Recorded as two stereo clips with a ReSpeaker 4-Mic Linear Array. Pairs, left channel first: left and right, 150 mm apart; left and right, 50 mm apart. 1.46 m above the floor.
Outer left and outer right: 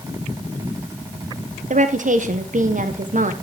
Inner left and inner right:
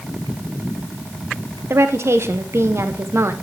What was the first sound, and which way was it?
A woman speaking, 60° right (ahead or behind).